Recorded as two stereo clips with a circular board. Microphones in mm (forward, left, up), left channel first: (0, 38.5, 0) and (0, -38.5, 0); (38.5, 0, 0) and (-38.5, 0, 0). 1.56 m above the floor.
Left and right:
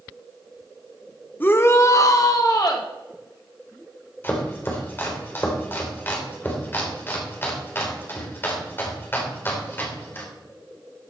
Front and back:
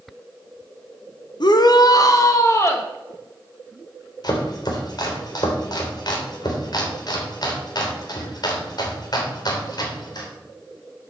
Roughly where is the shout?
Ahead left.